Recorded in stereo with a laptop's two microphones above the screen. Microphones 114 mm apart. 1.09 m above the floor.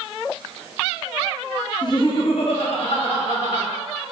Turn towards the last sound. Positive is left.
turn(degrees=65)  # may be behind; listen again after turning